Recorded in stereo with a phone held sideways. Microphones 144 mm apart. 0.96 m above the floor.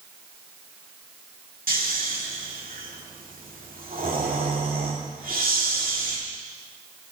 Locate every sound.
1.7 s snoring: 85° right, 1.8 m